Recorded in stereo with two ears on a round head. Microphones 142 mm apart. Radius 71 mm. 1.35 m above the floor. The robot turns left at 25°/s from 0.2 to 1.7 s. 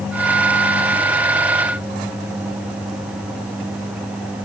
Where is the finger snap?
I don't hear a finger snap.